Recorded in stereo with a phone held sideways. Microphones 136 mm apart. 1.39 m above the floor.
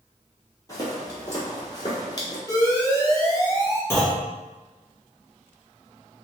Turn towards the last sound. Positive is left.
turn(degrees=20)  # may be behind; listen again after turning